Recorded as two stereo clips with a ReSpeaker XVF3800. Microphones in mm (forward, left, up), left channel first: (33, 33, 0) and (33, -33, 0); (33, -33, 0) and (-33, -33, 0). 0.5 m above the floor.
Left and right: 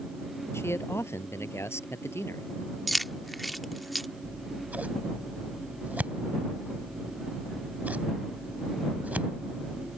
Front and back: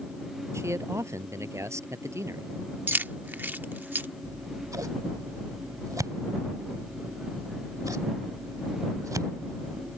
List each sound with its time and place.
0.5 s a man speaking: 140° left
2.9 s keys jangling: straight behind
4.2 s scissors: 155° right